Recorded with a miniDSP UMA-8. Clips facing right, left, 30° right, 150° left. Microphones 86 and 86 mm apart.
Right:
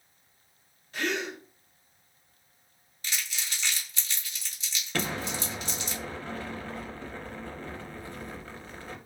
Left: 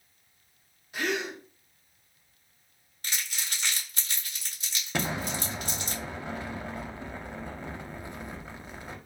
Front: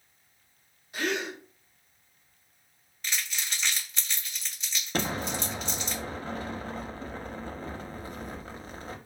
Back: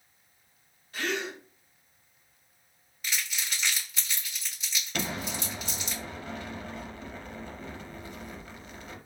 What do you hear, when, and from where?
0.9 s a gasp: 25° left, 0.8 m
3.0 s crumpling: 65° left, 1.2 m
4.9 s an explosion: 20° left, 0.5 m